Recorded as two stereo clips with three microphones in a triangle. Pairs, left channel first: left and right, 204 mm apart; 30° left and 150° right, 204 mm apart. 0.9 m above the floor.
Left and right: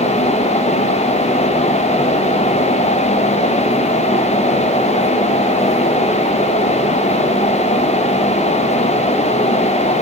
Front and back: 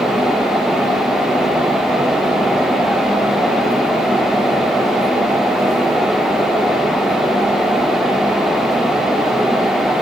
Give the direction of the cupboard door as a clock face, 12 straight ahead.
I don't hear a cupboard door.